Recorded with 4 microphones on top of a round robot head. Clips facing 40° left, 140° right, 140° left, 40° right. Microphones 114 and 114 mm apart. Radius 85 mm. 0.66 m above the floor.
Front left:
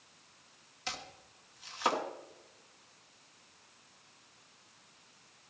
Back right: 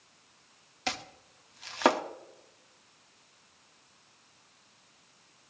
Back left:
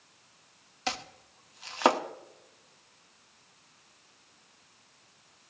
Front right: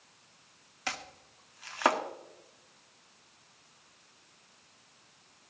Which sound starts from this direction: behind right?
Chopping, at 0.9 s.